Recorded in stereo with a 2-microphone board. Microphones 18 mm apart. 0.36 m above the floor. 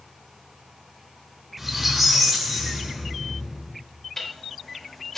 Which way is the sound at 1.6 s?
10° right (ahead or behind).